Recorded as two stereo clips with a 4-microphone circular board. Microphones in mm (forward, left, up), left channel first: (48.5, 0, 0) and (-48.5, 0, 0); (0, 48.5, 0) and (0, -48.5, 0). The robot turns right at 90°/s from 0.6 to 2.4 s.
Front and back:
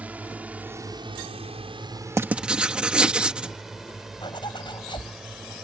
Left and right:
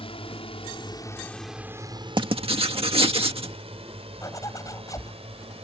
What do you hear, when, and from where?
0.0 s a drone: 105° left; by 5.6 s 95° right
2.2 s writing: 125° right; by 3.6 s 100° right
4.2 s a zipper: 35° left